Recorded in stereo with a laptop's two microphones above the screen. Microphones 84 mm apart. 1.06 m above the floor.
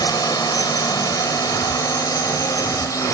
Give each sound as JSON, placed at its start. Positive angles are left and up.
{"t": 0.0, "sound": "a drone", "side_deg": 50}